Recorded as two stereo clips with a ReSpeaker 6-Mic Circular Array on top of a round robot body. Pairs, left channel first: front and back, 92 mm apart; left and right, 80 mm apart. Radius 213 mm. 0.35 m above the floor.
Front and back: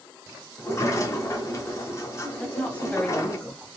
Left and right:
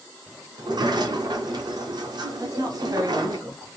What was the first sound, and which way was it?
A sliding door, 60° right.